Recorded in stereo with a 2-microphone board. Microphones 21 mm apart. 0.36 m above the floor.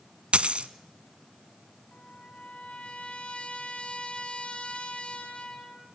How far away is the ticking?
No ticking in this recording.